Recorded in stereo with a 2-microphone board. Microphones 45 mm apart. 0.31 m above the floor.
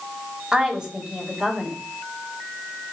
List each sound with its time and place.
0.5 s a woman speaking: 15° right (ahead or behind), 1.7 m